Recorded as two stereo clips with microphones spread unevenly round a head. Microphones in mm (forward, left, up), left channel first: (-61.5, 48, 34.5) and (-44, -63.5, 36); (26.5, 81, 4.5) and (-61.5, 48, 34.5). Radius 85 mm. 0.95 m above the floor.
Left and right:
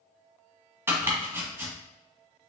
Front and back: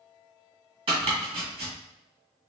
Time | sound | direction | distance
0.9 | chopping | 145° right | 1.6 m